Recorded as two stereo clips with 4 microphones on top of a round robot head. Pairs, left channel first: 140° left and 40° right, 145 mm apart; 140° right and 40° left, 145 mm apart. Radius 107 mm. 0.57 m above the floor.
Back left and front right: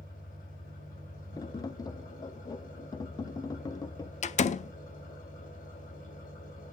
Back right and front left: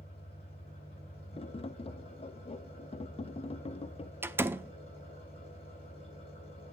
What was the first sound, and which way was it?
An engine running, 170° left.